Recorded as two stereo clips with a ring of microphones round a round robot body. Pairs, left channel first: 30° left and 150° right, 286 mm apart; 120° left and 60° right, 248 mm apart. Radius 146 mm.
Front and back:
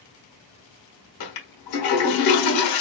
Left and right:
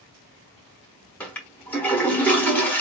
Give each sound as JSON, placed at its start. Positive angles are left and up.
{"t": 1.2, "sound": "a toilet flushing", "azimuth_deg": 35, "distance_m": 1.3}